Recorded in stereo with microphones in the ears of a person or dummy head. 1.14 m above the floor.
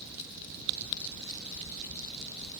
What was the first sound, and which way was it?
Only background noise.